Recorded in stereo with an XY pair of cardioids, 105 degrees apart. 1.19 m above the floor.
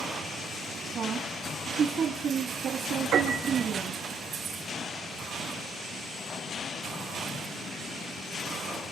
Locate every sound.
0.9 s a woman speaking: 60° right, 1.9 m
3.1 s a piano: 70° right, 6 m